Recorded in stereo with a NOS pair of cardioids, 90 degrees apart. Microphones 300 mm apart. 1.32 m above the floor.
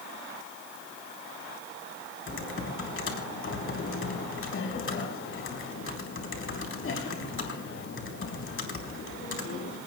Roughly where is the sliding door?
I don't hear a sliding door.